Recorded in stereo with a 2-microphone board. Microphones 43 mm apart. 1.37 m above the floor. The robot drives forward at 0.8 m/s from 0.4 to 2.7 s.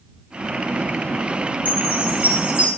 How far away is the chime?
About 1.7 m.